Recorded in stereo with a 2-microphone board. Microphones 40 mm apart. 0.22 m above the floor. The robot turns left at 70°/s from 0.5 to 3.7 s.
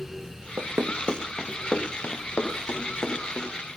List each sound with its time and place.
0.6 s running footsteps: 80° right, 1.0 m; by 3.5 s 25° left (ahead or behind), 3.5 m